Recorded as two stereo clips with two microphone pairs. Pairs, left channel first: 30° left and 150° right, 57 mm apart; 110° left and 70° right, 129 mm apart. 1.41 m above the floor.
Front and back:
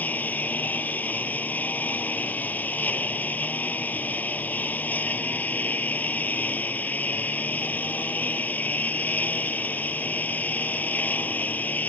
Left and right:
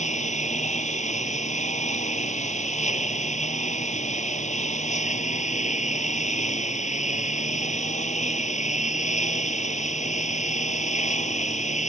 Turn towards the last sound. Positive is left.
turn(degrees=90)